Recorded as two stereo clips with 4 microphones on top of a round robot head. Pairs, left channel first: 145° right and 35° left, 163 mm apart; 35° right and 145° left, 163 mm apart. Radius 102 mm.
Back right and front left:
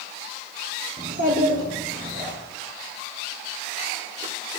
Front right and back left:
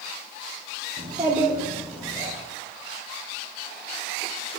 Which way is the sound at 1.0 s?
90° left.